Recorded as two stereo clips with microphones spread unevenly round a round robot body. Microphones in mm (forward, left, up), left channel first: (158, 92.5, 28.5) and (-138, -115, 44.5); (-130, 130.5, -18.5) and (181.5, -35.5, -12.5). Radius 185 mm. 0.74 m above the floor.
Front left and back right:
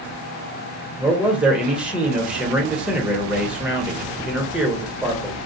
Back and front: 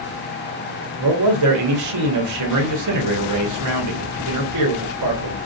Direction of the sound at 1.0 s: 55° right.